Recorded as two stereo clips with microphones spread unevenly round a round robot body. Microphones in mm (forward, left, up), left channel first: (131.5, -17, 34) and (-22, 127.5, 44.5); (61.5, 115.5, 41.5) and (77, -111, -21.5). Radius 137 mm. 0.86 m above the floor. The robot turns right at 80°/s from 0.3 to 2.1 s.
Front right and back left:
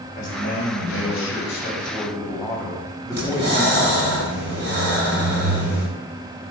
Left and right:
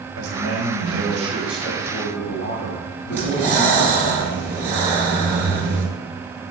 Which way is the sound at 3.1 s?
Straight behind.